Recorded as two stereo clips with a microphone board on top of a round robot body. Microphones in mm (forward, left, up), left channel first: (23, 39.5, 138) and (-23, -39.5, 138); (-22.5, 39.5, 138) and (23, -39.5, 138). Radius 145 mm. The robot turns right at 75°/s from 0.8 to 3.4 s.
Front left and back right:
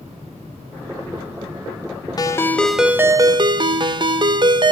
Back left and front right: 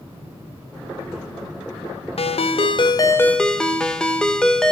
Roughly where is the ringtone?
Left.